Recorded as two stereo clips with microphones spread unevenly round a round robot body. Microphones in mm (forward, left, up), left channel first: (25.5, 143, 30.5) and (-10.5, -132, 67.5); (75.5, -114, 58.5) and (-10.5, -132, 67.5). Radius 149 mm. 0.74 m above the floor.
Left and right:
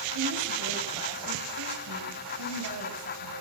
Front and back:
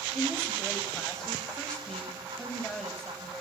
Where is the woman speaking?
70° right, 5 m.